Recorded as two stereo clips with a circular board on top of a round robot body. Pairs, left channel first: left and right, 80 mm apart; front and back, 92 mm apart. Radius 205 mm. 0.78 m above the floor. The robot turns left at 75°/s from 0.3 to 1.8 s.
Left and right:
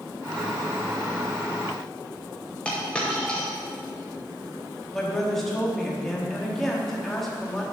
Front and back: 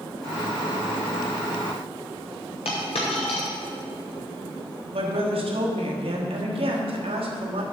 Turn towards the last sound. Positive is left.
turn(degrees=175)